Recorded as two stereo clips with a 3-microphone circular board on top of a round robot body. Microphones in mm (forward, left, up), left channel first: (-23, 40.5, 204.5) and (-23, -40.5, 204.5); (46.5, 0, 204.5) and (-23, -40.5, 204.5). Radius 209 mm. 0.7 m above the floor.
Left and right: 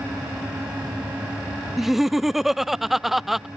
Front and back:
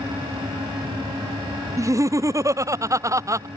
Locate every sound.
1.8 s laughter: 175° right